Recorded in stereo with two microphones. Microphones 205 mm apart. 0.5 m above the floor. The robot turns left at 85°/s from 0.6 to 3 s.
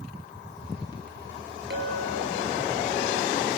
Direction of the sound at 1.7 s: 60° right.